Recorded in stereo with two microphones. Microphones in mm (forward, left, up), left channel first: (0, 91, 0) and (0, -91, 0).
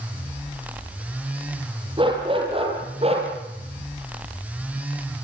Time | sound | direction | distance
2.0 | a dog barking | 25° right (ahead or behind) | 7.5 m